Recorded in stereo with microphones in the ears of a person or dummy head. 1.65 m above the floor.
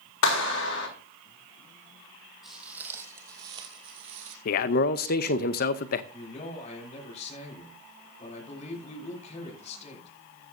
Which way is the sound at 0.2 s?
80° left.